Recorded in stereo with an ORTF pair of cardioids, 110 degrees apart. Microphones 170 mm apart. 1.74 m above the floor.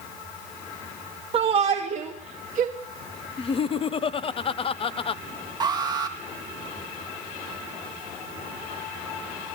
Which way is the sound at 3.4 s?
35° left.